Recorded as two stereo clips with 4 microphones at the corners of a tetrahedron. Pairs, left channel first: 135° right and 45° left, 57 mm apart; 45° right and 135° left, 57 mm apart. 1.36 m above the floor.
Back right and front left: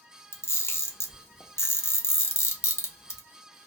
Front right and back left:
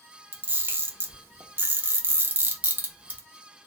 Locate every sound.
0.3 s a camera shutter: 170° right, 0.6 m